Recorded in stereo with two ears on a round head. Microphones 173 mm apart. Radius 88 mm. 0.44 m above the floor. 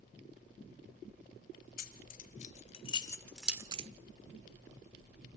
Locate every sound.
1.8 s keys jangling: 45° left (ahead or behind), 1.6 m; by 3.9 s 35° right (ahead or behind), 0.6 m